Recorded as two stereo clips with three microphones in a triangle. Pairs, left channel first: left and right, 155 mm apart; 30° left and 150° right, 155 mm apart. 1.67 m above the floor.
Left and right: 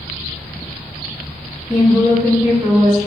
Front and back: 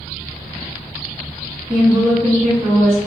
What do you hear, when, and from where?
1.7 s a woman speaking: 155° right, 1.9 m